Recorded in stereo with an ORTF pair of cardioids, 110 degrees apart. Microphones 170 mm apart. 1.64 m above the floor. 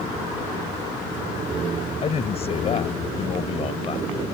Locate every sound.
2.0 s a man speaking: 40° left